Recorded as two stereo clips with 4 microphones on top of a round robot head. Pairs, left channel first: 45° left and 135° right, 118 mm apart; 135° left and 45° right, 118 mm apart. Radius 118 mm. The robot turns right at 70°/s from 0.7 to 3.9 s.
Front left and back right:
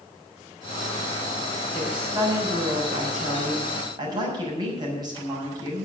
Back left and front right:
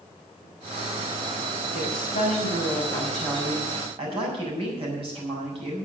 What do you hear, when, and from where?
1.7 s a woman speaking: 125° left, 6 m; by 5.8 s 85° right, 6 m